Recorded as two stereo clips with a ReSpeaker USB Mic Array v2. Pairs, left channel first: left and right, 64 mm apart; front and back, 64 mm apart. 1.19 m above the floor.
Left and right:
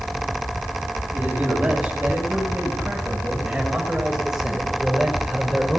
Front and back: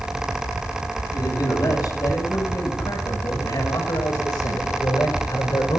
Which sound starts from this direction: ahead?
A man speaking, at 1.1 s.